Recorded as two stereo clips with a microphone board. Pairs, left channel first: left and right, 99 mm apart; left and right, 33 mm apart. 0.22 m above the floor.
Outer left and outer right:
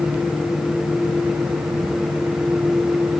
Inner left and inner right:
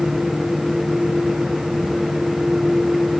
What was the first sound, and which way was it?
Only background noise.